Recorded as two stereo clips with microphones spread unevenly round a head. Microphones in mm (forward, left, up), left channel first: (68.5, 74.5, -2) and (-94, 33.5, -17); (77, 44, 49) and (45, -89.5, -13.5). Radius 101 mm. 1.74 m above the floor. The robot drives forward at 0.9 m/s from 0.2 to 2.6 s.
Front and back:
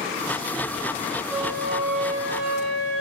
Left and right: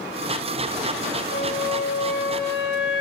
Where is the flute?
105° left, 9.5 m; by 3.0 s 110° left, 9.5 m.